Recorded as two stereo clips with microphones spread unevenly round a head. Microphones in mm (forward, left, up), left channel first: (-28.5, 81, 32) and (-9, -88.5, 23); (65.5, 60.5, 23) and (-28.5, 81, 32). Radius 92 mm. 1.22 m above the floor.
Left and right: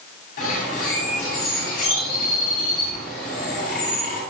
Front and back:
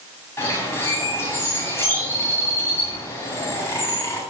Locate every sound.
0.4 s a bird: 50° left, 9 m